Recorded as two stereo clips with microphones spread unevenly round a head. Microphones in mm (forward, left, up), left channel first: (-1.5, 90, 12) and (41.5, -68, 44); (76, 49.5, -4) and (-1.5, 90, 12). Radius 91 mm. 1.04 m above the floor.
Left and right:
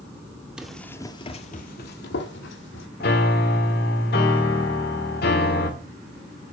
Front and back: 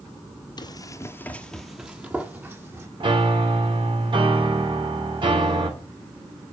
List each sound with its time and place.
0.6 s running footsteps: straight ahead, 1.8 m; by 2.9 s 100° left, 3.5 m
3.0 s a piano: 135° left, 2.5 m